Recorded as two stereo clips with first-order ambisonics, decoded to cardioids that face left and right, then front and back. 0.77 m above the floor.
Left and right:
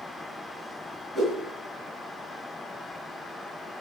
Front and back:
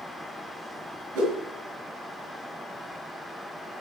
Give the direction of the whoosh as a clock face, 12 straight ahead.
6 o'clock.